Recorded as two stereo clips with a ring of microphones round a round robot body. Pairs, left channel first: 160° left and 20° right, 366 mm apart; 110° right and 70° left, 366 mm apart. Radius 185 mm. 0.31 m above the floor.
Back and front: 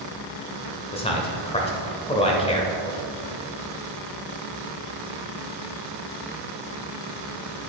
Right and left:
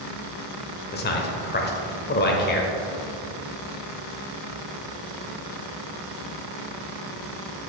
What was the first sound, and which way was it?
A man speaking, 145° right.